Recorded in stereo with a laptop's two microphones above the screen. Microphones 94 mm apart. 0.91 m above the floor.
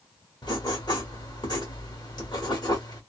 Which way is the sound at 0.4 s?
50° left (ahead or behind).